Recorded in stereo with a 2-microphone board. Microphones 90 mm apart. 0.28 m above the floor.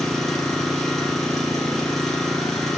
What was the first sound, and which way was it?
An engine running, 5° left (ahead or behind).